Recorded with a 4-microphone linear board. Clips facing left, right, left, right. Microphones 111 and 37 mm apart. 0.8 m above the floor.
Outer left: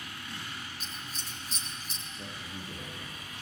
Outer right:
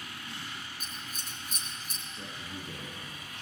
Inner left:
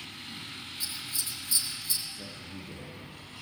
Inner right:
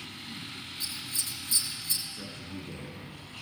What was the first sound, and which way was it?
Scissors, 55° right (ahead or behind).